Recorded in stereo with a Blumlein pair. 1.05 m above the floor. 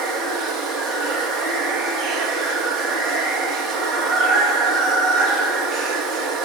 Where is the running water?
25° right, 1.4 m.